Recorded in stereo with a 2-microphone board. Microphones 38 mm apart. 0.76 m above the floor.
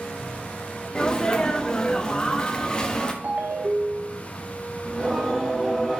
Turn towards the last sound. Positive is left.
turn(degrees=0)  # may be behind; listen again after turning